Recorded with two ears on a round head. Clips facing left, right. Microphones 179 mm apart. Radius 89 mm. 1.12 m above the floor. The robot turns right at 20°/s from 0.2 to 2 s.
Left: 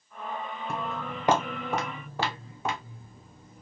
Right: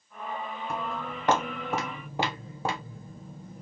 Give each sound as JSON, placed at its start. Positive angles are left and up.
{"t": 0.7, "sound": "footsteps", "side_deg": 25, "distance_m": 1.2}